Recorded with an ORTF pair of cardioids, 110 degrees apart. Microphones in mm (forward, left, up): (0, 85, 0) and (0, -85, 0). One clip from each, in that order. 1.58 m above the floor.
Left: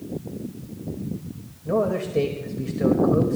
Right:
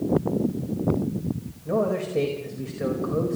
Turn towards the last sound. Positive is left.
turn(degrees=10)